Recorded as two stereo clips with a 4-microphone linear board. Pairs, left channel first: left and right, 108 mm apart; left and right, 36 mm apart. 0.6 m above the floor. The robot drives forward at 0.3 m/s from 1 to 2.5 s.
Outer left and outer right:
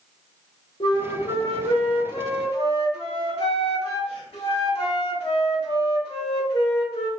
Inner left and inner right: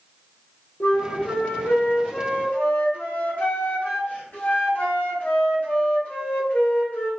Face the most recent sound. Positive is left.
turn(degrees=55)  # may be behind; listen again after turning